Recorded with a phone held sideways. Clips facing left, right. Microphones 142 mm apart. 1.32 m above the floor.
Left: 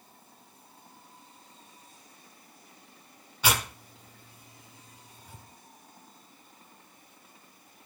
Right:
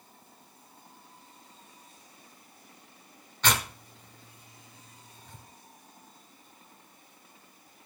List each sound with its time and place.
3.4 s tearing paper: 10° left (ahead or behind), 1.2 m